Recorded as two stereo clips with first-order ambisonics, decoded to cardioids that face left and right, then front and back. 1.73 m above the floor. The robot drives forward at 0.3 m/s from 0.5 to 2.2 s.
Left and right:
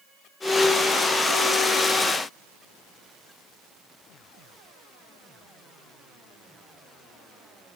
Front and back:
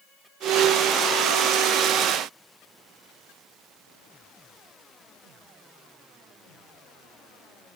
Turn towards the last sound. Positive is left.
No sound to turn to.